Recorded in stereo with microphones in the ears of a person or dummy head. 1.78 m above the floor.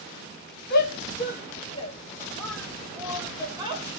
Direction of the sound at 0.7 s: 60° left (ahead or behind).